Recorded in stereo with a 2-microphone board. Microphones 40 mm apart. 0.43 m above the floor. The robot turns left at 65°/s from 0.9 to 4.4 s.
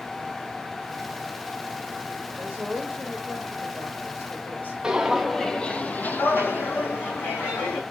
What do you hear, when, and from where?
2.4 s a woman speaking: 135° right, 1.8 m; by 4.7 s 95° left, 1.8 m
4.8 s footsteps: 15° right (ahead or behind), 0.7 m; by 7.8 s 65° left (ahead or behind), 1.4 m